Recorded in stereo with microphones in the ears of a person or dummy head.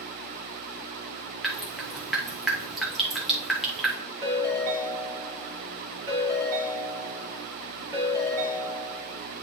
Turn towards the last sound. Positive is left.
turn(degrees=-15)  # may be behind; listen again after turning